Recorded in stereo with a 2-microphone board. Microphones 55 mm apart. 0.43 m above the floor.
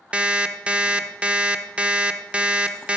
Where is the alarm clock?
20° right (ahead or behind), 0.5 m.